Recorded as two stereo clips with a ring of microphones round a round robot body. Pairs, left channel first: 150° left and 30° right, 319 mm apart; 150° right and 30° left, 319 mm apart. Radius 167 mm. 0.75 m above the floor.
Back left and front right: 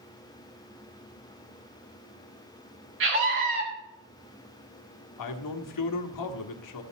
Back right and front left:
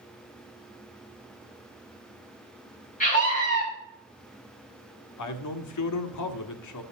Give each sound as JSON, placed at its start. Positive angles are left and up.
{"t": 3.0, "sound": "a scream", "azimuth_deg": -85, "distance_m": 7.0}
{"t": 5.2, "sound": "a man speaking", "azimuth_deg": 175, "distance_m": 1.6}